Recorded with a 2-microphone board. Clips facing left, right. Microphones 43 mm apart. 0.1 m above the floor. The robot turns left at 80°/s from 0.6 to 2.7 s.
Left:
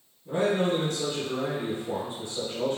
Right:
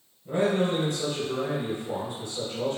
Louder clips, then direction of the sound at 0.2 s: Even; 20° right (ahead or behind).